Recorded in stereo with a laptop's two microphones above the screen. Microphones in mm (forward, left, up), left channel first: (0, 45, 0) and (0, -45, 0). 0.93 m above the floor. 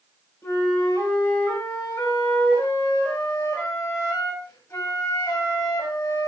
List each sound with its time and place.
0.4 s a flute: 30° left (ahead or behind), 6 m